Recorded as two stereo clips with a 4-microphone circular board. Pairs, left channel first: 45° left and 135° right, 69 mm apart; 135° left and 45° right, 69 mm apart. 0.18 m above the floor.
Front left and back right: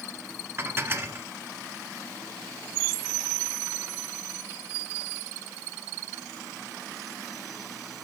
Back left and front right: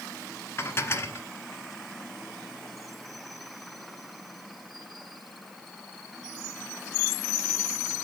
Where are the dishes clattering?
Straight behind, 1.5 m.